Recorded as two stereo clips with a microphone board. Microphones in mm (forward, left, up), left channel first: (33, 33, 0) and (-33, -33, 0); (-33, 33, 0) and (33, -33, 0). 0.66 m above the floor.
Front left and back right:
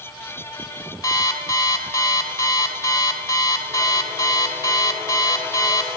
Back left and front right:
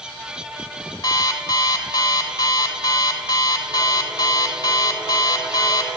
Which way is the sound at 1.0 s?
95° left.